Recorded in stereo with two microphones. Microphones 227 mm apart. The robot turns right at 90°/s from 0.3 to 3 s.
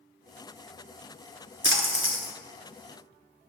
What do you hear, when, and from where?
1.6 s a splash: 115° right, 1.0 m; by 2.3 s 55° right, 1.0 m